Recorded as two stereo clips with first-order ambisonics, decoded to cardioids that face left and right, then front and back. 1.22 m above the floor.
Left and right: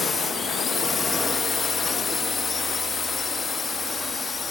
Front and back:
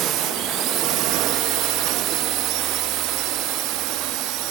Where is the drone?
160° left; by 4.5 s 165° left.